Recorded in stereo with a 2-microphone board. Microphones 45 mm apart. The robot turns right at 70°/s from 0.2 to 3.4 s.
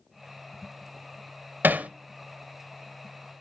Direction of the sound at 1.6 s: 45° right (ahead or behind).